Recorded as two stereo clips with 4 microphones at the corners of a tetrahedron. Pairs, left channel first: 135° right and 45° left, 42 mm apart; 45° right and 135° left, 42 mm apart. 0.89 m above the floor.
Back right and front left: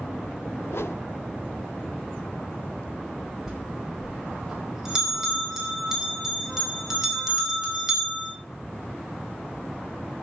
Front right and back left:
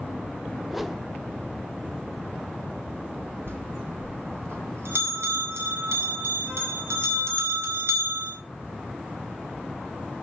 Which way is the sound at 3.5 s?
125° left.